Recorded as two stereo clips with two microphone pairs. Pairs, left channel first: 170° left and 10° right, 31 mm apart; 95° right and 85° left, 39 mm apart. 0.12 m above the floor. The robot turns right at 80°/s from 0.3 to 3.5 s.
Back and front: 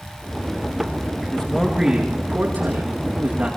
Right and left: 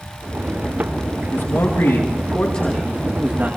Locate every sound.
1.3 s a man speaking: 130° right, 8.5 m; by 3.6 s 45° left, 8.5 m